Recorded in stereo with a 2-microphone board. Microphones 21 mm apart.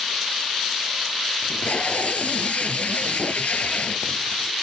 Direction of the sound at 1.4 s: 65° left (ahead or behind).